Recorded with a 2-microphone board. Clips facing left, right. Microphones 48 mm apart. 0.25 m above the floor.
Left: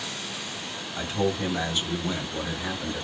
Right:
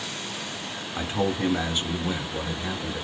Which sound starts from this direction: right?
A man speaking, at 1.0 s.